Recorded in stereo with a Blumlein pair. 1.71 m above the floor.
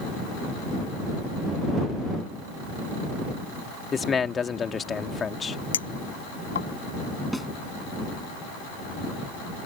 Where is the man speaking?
20° left.